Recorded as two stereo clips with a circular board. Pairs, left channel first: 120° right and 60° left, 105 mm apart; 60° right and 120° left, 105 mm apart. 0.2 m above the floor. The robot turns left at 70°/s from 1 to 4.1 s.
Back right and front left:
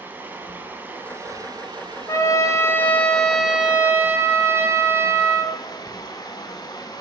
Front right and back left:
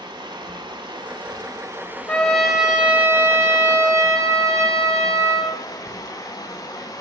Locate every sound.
0.0 s running water: 125° left, 0.7 m; by 7.0 s 95° right, 0.7 m
2.1 s a trumpet: 120° right, 0.8 m; by 5.5 s 100° left, 0.8 m